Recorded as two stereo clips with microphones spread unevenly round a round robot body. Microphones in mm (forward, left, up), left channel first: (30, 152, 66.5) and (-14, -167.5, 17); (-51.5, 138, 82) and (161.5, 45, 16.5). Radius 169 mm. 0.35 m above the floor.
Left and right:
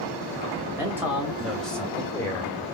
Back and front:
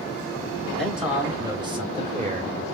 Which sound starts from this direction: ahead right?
A man speaking, at 0.8 s.